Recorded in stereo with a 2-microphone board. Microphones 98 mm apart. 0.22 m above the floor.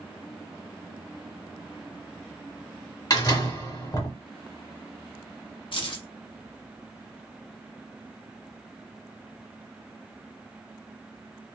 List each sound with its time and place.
3.1 s a door slam: 40° left (ahead or behind), 1.6 m
5.7 s keys jangling: 55° left (ahead or behind), 1.1 m